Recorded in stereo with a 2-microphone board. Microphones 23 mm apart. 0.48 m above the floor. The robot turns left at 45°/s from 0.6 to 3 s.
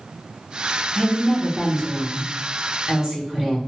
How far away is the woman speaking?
About 0.9 m.